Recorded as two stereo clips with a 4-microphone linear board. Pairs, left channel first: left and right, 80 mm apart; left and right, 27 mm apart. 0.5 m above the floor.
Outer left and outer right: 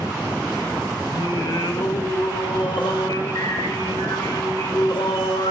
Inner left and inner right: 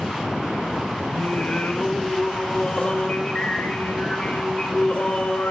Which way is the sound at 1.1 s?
70° left (ahead or behind).